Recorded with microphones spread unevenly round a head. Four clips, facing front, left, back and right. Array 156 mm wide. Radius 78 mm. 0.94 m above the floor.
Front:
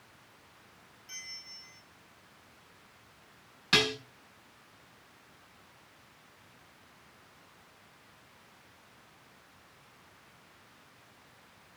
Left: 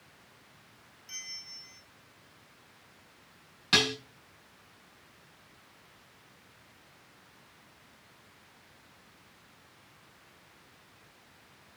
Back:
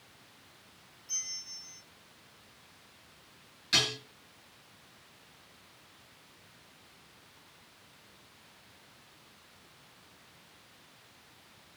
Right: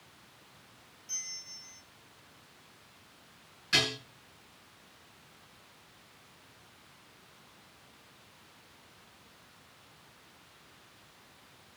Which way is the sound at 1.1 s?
55° left.